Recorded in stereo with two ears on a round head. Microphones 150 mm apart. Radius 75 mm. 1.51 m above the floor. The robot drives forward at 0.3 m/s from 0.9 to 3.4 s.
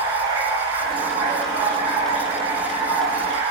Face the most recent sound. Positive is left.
turn(degrees=-10)  # may be behind; listen again after turning